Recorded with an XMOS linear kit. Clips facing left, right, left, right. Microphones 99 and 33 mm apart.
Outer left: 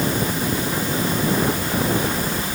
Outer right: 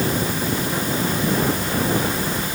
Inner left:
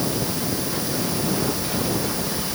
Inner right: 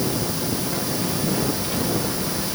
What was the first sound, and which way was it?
Only background noise.